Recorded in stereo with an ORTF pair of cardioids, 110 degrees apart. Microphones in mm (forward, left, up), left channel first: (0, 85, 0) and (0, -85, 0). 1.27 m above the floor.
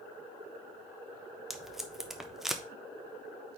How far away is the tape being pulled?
About 0.8 m.